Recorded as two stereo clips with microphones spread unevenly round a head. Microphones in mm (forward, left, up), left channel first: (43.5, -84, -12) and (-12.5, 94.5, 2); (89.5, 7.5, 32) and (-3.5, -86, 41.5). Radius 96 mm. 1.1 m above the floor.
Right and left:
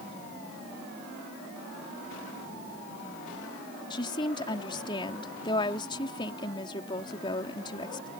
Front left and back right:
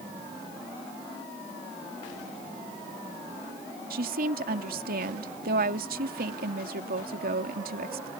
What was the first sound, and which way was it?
A woman speaking, 140° right.